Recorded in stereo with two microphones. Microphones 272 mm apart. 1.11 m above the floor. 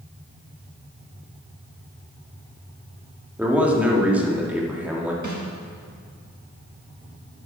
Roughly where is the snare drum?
Right.